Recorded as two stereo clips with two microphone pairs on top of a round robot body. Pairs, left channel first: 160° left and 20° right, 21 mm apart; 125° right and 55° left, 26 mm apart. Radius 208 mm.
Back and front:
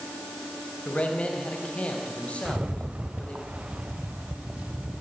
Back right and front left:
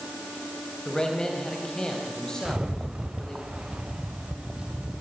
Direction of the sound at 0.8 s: 170° left.